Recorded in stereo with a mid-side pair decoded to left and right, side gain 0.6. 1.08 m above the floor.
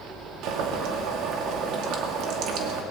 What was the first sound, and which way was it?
Boiling, 70° right.